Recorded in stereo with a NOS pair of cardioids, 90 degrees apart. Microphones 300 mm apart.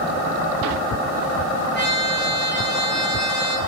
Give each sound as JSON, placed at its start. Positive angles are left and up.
{"t": 1.7, "sound": "a trumpet", "azimuth_deg": -35, "distance_m": 1.2}